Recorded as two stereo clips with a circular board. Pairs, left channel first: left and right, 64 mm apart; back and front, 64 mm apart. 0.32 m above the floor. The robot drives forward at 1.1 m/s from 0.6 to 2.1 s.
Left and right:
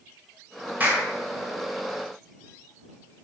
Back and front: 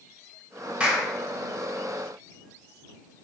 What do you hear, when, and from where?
0.8 s a clap: 55° right, 1.1 m; by 1.1 s 90° right, 1.0 m